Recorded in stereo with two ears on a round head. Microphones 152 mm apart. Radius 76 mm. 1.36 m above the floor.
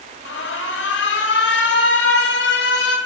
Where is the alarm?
75° left (ahead or behind), 4 m.